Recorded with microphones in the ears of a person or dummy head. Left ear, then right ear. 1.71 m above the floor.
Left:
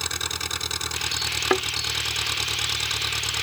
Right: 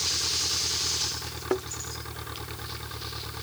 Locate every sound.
0.0 s an engine running: 80° left
1.5 s a thud: 70° left (ahead or behind)